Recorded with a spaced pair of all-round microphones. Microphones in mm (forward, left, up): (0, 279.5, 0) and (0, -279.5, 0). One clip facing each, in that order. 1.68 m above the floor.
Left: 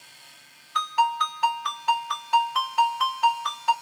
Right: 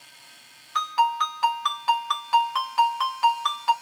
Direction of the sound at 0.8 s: 20° right (ahead or behind).